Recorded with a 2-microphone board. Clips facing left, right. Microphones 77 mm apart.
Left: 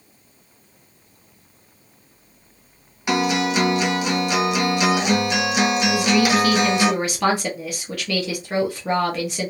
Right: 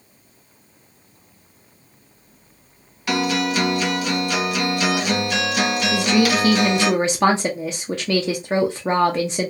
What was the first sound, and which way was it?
A guitar, 20° left (ahead or behind).